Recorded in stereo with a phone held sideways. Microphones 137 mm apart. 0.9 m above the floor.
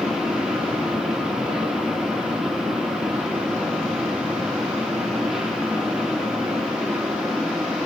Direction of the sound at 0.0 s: 5° right (ahead or behind).